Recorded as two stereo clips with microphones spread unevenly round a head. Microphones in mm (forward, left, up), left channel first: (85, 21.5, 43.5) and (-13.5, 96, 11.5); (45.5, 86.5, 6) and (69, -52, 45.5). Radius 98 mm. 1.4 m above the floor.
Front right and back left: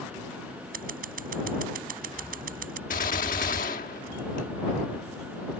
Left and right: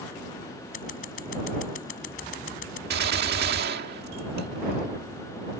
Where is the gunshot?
85° right.